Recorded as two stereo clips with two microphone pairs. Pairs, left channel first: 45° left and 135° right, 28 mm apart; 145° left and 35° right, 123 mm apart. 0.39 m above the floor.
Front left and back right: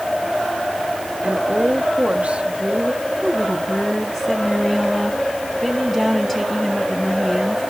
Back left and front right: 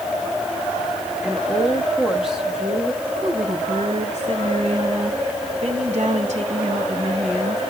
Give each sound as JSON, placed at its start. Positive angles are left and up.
{"t": 1.2, "sound": "a woman speaking", "azimuth_deg": -120, "distance_m": 1.4}
{"t": 3.2, "sound": "a woman speaking", "azimuth_deg": -35, "distance_m": 3.5}